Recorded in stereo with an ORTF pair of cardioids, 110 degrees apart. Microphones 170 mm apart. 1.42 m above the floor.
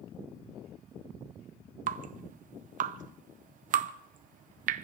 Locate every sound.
1.9 s dripping: 55° right, 0.7 m